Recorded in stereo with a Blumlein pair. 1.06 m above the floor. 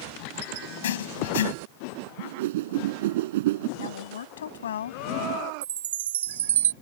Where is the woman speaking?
65° left.